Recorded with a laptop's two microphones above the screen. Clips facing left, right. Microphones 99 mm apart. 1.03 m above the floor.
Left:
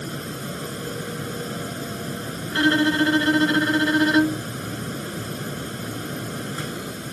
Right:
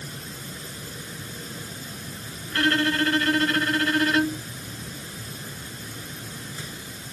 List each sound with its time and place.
0.0 s a fan: 65° left (ahead or behind)
2.5 s a violin: 20° left (ahead or behind)